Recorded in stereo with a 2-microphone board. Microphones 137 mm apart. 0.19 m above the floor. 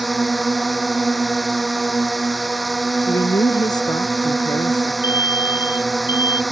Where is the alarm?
15° right (ahead or behind).